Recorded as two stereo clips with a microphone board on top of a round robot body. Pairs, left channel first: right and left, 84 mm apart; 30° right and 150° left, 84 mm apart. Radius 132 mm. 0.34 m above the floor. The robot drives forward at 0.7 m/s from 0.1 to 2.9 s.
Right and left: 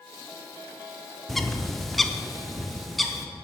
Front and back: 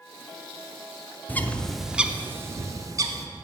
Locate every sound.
1.3 s a bird: 5° right, 0.9 m; by 3.3 s straight behind, 1.1 m